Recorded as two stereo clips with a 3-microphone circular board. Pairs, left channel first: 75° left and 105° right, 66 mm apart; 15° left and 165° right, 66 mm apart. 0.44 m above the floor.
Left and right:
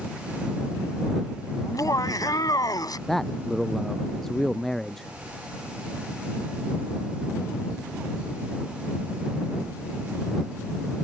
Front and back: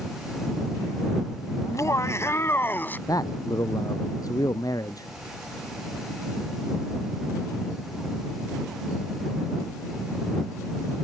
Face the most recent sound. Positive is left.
turn(degrees=-10)